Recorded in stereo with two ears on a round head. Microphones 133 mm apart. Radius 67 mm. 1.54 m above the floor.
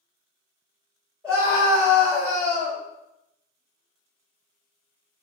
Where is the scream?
15° right (ahead or behind), 1.4 m.